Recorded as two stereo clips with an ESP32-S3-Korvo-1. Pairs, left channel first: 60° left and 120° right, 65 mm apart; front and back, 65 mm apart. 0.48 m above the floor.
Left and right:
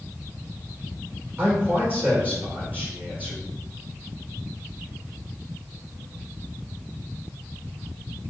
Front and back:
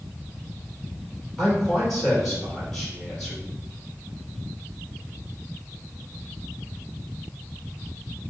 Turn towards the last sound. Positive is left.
turn(degrees=-80)